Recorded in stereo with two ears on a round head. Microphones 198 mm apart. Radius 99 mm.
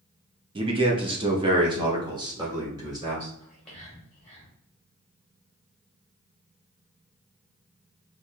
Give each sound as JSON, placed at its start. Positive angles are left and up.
{"t": 0.6, "sound": "a man speaking", "side_deg": -25, "distance_m": 0.6}
{"t": 3.4, "sound": "whispering", "side_deg": 5, "distance_m": 1.4}